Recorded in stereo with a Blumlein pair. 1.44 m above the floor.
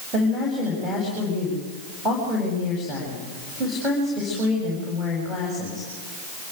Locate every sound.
0.1 s a woman speaking: 5° right, 8.5 m